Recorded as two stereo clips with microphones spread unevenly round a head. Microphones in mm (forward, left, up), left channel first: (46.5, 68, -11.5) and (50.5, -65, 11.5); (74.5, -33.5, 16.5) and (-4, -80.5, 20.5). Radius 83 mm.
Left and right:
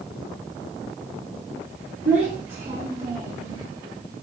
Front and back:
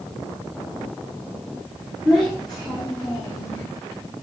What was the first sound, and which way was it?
A child speaking, 60° right.